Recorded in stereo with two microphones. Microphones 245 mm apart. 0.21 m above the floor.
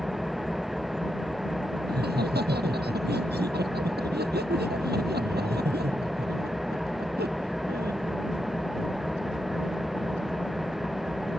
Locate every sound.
0.0 s an engine running: centre (ahead or behind)
1.9 s laughter: 40° right (ahead or behind)